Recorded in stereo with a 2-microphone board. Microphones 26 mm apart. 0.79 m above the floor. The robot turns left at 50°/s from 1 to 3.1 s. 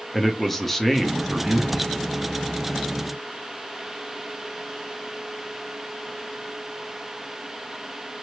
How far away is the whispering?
About 1.6 m.